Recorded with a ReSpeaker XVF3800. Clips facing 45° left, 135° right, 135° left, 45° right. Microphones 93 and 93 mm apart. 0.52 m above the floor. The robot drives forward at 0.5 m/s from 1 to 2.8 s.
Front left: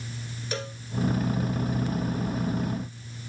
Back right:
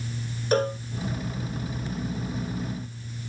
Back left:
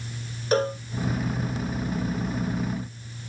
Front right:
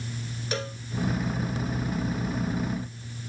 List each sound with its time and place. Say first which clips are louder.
0.5 s a cowbell: back right 12 dB, back left 11 dB; 175° right